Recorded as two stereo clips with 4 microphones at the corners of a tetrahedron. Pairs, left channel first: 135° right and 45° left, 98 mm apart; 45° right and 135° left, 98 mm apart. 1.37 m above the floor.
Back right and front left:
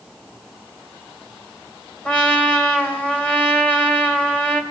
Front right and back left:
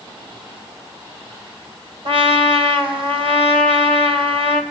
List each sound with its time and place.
2.0 s a trumpet: 150° left, 3 m